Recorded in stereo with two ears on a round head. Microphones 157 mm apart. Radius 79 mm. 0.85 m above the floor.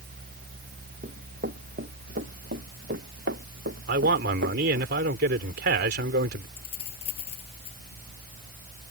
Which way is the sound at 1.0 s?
50° right (ahead or behind).